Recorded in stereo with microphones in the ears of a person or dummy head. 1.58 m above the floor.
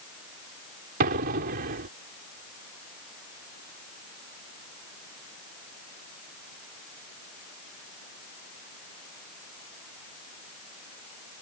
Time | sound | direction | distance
1.0 | an explosion | 50° right (ahead or behind) | ?